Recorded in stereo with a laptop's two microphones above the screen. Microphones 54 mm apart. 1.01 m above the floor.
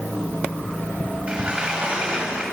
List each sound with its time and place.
1.3 s a sliding door: 20° right (ahead or behind), 7.5 m